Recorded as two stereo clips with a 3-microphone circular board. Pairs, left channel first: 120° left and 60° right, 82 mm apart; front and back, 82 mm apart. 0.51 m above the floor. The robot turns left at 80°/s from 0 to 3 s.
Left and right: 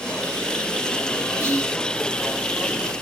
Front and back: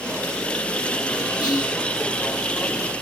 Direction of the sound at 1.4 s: 5° right.